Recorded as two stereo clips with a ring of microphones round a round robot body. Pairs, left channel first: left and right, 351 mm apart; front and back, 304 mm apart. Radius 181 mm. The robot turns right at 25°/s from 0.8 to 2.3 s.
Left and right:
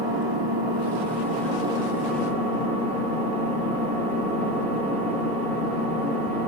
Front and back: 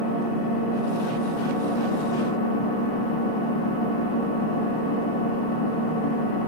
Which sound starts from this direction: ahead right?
An engine running, at 0.0 s.